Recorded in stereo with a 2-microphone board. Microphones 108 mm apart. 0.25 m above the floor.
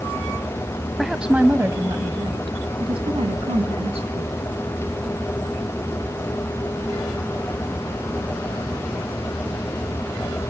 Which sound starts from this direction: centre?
A woman speaking, at 1.0 s.